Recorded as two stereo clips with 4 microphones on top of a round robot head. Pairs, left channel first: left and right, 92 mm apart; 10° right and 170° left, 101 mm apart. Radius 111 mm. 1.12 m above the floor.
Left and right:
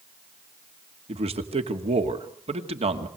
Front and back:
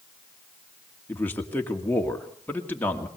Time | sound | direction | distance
1.1 | a man speaking | 80° right | 2.5 m